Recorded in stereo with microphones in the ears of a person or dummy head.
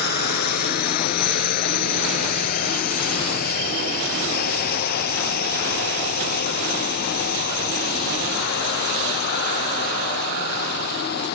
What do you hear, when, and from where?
0.0 s a drone: 45° left (ahead or behind)